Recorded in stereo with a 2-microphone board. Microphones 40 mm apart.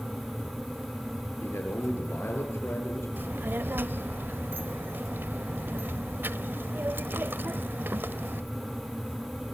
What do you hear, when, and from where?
1.4 s a man speaking: 80° left, 6 m
3.2 s a child speaking: 60° right (ahead or behind), 0.7 m